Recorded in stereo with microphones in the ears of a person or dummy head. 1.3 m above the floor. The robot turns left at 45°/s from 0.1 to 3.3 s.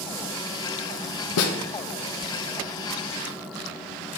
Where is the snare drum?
80° left, 1.0 m; by 1.6 s 70° left (ahead or behind), 1.0 m.